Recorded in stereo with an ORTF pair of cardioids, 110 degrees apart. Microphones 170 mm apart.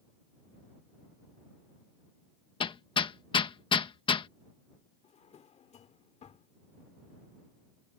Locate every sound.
2.6 s hammering: 30° left
5.0 s a drawer: 40° left